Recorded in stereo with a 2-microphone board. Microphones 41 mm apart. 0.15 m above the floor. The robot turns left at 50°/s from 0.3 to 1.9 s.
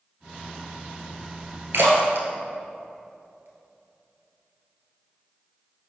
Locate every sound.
1.7 s a splash: 65° right (ahead or behind), 1.4 m; by 3.5 s 60° right (ahead or behind), 1.4 m